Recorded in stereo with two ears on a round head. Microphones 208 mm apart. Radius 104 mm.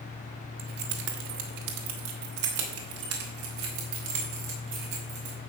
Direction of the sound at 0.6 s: 45° right (ahead or behind).